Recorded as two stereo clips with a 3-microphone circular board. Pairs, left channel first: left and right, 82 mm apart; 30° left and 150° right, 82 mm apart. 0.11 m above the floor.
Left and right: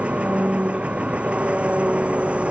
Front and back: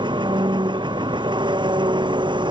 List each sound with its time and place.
0.0 s an engine running: 165° right